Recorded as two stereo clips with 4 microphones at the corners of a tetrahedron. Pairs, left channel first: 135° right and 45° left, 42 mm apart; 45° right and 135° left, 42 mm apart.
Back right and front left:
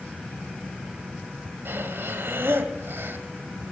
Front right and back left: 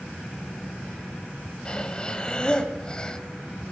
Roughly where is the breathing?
Ahead.